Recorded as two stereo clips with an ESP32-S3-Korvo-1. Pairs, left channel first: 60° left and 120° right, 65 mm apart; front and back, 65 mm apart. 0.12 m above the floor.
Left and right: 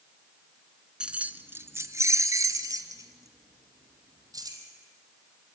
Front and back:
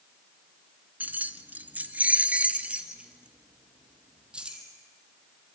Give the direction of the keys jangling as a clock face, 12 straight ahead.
6 o'clock.